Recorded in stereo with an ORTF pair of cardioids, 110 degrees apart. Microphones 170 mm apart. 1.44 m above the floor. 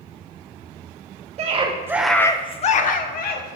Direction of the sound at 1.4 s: 40° right.